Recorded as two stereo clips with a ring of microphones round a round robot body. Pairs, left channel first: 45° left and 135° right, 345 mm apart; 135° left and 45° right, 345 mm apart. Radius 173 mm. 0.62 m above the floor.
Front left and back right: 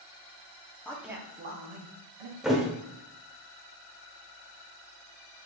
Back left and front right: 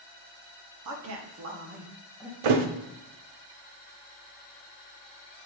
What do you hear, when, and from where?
0.8 s a man speaking: 35° right, 0.8 m; by 2.3 s 130° right, 1.0 m
2.4 s a thud: 45° right, 0.5 m